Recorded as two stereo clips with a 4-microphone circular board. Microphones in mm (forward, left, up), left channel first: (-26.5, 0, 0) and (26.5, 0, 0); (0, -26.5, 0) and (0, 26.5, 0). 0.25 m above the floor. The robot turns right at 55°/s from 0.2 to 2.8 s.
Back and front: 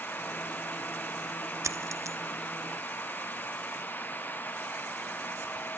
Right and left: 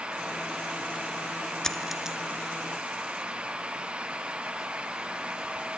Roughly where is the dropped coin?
Ahead.